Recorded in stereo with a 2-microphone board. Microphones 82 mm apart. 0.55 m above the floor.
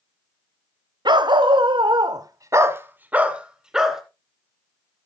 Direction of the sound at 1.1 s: 65° right (ahead or behind).